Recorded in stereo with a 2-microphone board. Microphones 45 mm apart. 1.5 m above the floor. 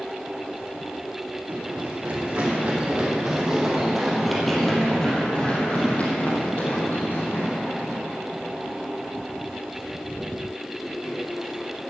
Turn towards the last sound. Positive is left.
turn(degrees=75)  # may be behind; listen again after turning